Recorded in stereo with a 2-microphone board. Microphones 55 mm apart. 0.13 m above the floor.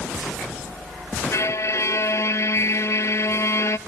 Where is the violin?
70° left (ahead or behind), 0.5 m.